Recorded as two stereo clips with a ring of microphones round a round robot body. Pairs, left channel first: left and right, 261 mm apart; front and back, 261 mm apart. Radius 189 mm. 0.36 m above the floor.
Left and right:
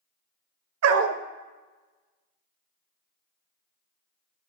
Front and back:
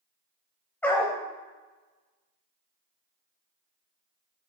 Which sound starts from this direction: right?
A dog barking, at 0.8 s.